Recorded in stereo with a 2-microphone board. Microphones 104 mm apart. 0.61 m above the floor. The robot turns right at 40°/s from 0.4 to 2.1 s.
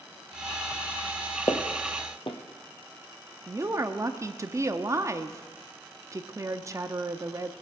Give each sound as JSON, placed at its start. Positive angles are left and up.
{"t": 1.5, "sound": "footsteps", "side_deg": 30, "distance_m": 1.4}
{"t": 3.5, "sound": "a woman speaking", "side_deg": -30, "distance_m": 0.6}